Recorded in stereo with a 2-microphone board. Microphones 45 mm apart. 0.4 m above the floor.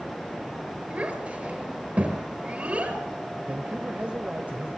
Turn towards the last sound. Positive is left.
turn(degrees=-35)  # may be behind; listen again after turning